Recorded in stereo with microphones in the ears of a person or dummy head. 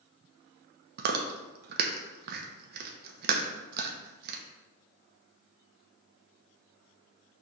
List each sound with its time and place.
1.0 s chewing: 55° right (ahead or behind), 0.8 m